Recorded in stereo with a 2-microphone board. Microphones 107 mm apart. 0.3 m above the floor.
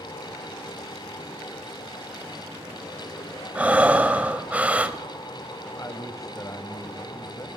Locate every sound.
3.5 s breathing: 15° right (ahead or behind), 1.4 m
5.8 s a man speaking: 30° left (ahead or behind), 1.4 m